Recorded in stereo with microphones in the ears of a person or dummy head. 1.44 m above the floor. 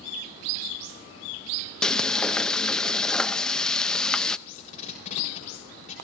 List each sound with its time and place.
1.8 s frying: 5° left (ahead or behind), 0.6 m
4.5 s tape being pulled: 40° left (ahead or behind), 4 m